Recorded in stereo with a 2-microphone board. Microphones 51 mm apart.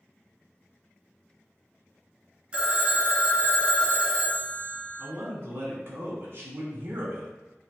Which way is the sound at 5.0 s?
50° right (ahead or behind).